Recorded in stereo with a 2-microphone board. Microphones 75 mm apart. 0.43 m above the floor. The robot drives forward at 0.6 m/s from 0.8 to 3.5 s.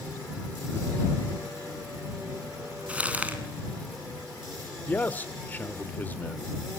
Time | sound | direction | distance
2.9 | crumpling | 20° right (ahead or behind) | 3.5 m
4.9 | a man speaking | 25° left (ahead or behind) | 0.9 m